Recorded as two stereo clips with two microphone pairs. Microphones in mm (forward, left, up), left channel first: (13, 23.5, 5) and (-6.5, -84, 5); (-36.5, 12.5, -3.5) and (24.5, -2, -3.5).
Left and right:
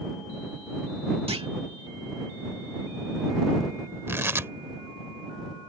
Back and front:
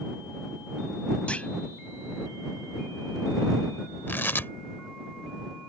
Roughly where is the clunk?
Behind right.